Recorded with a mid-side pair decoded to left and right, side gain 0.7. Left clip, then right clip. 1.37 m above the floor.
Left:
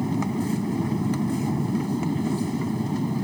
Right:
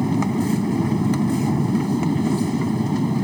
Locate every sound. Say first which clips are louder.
0.0 s a machine running: right 5 dB; 25° right